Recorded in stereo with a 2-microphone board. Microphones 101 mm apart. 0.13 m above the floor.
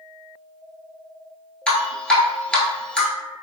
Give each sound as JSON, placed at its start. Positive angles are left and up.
{"t": 1.7, "sound": "dripping", "side_deg": 10, "distance_m": 0.8}